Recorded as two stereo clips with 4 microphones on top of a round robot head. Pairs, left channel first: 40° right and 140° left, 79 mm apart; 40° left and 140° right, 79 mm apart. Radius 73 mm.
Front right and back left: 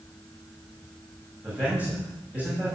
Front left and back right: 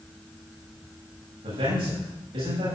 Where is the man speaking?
145° right, 8 m.